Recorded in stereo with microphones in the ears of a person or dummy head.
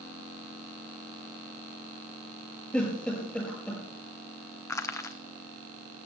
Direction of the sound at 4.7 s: 15° left (ahead or behind).